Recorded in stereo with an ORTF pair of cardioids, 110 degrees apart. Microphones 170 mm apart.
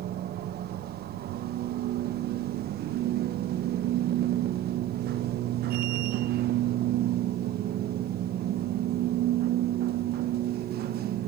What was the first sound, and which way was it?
A machine running, 65° right.